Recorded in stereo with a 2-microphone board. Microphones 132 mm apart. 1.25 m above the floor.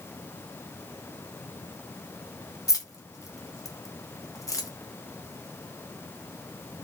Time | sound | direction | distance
2.7 | keys jangling | 25° left (ahead or behind) | 0.6 m